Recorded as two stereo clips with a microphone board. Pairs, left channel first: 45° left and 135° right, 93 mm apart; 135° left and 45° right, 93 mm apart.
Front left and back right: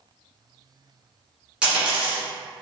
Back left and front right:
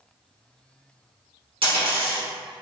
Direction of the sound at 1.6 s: 55° right.